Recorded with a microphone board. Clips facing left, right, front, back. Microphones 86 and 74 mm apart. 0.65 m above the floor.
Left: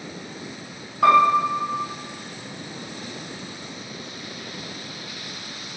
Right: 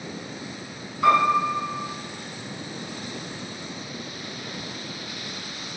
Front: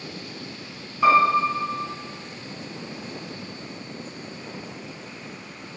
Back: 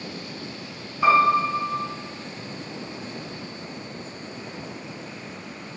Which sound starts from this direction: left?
A piano, at 1.0 s.